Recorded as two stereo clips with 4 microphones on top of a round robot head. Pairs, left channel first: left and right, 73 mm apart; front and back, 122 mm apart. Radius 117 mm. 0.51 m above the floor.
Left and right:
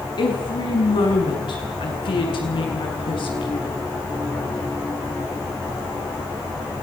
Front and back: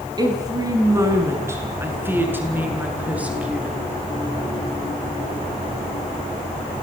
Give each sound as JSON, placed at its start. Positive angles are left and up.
{"t": 0.2, "sound": "a woman speaking", "azimuth_deg": 120, "distance_m": 6.0}